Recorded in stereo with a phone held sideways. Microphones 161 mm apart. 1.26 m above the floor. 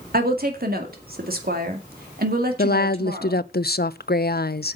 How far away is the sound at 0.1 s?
About 2 m.